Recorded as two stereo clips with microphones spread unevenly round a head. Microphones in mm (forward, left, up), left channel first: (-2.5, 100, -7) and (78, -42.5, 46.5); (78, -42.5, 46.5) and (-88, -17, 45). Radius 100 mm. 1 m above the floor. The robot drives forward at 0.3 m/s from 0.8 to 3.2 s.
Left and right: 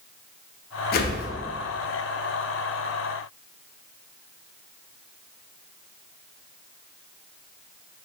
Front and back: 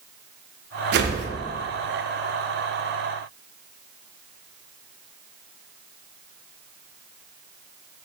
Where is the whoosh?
145° left, 0.6 m; by 1.3 s 150° left, 0.6 m.